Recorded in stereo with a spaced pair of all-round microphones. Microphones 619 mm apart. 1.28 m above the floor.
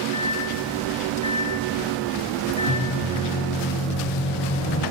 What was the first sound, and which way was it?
A microwave, 55° left (ahead or behind).